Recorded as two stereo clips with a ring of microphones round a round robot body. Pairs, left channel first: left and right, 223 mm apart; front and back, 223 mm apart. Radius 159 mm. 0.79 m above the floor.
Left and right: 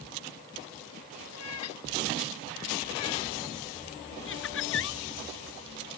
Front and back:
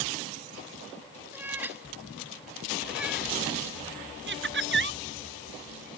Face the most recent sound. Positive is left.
turn(degrees=145)